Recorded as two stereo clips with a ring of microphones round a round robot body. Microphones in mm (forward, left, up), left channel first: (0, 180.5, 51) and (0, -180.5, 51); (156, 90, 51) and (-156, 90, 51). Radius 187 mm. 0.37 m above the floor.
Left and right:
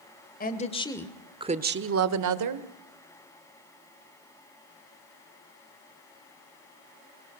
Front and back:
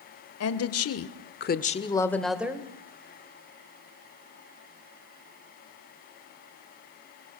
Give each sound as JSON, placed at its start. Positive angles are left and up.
{"t": 0.4, "sound": "a woman speaking", "azimuth_deg": 30, "distance_m": 1.7}